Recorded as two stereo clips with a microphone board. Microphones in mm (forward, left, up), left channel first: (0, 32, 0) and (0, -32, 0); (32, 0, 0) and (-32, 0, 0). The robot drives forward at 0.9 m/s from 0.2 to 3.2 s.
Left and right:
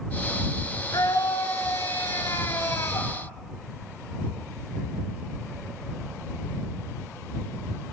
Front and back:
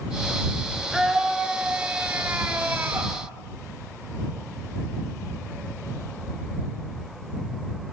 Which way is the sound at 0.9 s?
100° left.